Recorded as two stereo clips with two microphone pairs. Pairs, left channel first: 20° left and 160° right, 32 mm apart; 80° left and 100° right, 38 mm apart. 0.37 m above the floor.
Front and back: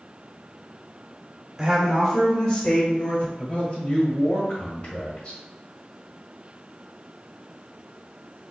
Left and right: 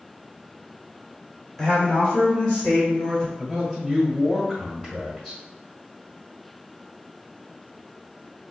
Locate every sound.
1.6 s a woman speaking: 150° left, 1.7 m; by 3.3 s 15° left, 2.5 m
3.4 s a man speaking: 15° left, 1.3 m